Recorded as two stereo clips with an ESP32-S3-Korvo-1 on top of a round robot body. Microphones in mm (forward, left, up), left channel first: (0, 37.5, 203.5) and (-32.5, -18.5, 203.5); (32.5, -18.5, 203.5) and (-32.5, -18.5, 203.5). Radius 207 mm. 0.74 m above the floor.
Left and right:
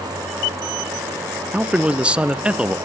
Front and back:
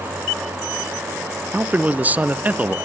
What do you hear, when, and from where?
1.5 s a man speaking: 165° right, 0.9 m